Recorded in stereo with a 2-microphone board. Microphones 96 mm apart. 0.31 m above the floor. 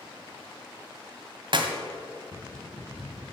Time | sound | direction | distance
1.5 | a clap | 55° right (ahead or behind) | 1.7 m